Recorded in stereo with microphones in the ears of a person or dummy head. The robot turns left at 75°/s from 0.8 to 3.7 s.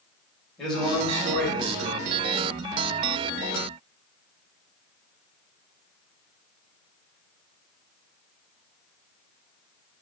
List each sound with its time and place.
0.6 s a man speaking: 5° left, 2 m; by 2.2 s 100° right, 2 m